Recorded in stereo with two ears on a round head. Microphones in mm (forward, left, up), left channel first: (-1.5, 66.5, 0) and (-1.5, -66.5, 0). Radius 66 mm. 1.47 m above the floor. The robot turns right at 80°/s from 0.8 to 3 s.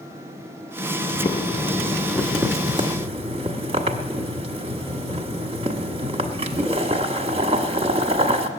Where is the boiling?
95° left, 1.2 m; by 8.5 s 115° right, 1.2 m.